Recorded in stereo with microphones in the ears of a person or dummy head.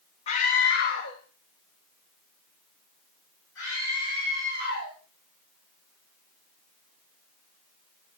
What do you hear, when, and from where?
0.3 s a scream: 40° left (ahead or behind), 0.6 m; by 4.9 s 85° left, 5.5 m